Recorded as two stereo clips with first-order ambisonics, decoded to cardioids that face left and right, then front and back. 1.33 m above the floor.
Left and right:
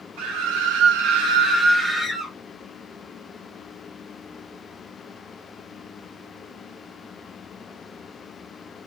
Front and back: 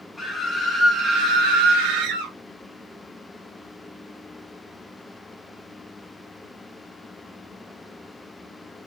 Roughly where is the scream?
Right.